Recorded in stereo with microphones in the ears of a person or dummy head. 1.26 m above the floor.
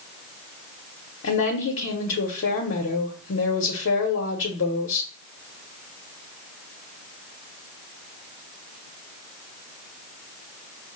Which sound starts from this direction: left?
A woman speaking, at 1.2 s.